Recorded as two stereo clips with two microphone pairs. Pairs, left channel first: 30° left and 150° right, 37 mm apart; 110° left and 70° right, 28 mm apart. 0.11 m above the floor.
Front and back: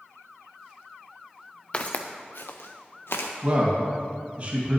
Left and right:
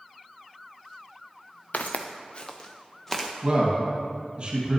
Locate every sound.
1.7 s footsteps: 90° left, 0.8 m; by 3.3 s 25° left, 1.3 m
3.4 s a man speaking: 110° right, 3 m